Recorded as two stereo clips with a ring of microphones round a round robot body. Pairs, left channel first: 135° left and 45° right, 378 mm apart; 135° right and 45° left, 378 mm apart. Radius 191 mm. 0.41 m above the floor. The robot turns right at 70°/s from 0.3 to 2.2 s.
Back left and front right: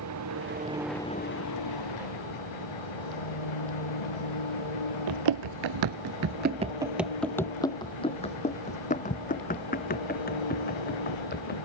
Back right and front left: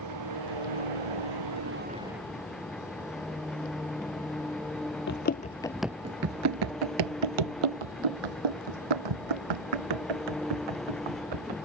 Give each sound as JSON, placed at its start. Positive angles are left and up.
{"t": 0.0, "sound": "an engine running", "azimuth_deg": 5}
{"t": 5.1, "sound": "running footsteps", "azimuth_deg": -75}